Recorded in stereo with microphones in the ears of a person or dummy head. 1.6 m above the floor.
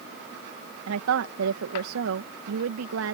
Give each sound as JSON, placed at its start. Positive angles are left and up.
{"t": 0.9, "sound": "a woman speaking", "side_deg": -75}